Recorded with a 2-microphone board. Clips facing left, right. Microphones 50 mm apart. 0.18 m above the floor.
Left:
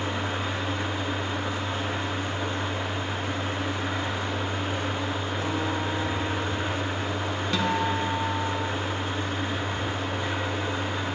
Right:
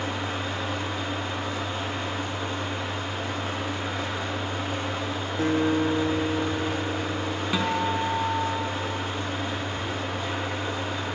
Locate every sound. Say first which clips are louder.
0.0 s an engine running: left 1 dB; 30° left (ahead or behind), 1.6 m
5.4 s a guitar: right 9 dB; 45° right (ahead or behind), 0.6 m
7.5 s a guitar: even; 15° right (ahead or behind), 0.6 m